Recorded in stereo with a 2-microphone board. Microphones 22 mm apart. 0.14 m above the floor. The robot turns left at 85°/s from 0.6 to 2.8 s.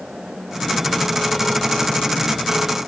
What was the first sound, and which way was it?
Only background noise.